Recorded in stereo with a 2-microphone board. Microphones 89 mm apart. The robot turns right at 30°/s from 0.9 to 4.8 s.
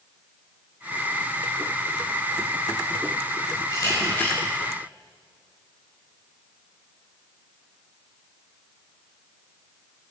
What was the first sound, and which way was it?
A camera shutter, 40° left (ahead or behind).